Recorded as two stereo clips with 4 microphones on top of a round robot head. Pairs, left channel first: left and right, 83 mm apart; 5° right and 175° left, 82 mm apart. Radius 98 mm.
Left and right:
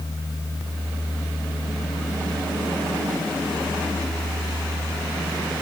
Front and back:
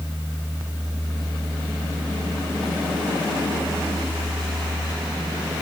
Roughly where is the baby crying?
I don't hear a baby crying.